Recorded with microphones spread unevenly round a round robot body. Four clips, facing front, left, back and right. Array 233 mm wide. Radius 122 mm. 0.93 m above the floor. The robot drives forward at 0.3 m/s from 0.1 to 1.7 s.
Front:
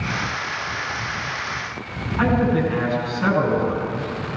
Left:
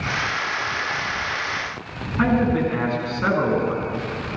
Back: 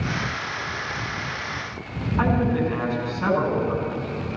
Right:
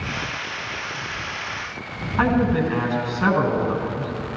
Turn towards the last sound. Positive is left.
turn(degrees=-80)